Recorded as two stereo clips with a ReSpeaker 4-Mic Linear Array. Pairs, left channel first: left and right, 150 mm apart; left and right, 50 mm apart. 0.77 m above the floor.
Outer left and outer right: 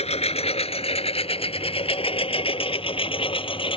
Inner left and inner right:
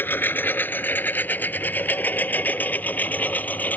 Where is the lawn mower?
45° left (ahead or behind); by 3.8 s 35° left (ahead or behind).